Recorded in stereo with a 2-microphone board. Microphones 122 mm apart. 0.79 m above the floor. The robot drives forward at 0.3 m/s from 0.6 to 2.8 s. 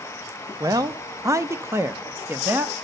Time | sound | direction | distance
0.6 | a man speaking | 30° right (ahead or behind) | 0.5 m